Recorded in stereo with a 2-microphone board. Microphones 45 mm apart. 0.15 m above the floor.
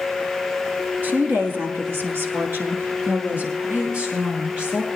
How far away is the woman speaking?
About 2.0 m.